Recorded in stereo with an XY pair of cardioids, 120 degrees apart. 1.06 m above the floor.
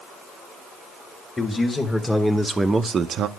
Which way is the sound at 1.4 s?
15° left.